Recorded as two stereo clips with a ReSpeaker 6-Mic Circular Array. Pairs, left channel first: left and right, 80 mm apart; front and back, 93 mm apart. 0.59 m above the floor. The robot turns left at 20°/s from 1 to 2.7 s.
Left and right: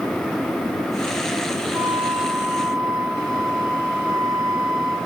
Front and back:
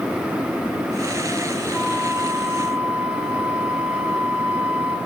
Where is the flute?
90° right, 8.5 m; by 5.0 s 110° right, 8.5 m.